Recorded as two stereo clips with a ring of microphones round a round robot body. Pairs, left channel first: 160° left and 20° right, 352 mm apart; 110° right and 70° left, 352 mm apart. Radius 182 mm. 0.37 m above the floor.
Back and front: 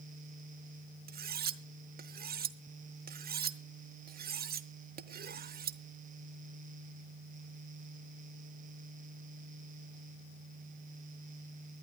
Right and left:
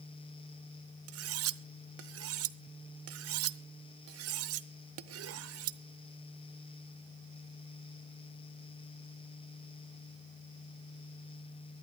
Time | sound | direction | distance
1.1 | cutlery clinking | 35° left | 0.8 m